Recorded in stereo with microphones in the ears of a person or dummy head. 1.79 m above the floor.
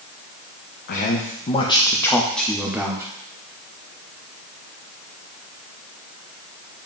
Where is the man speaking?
50° left (ahead or behind), 0.9 m; by 3.1 s 15° right (ahead or behind), 1.2 m.